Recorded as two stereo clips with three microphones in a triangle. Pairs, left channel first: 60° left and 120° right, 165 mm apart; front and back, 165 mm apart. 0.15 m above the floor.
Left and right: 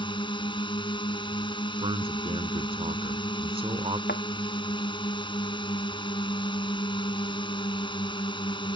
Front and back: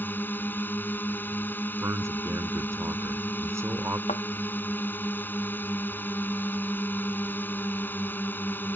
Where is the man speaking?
120° right.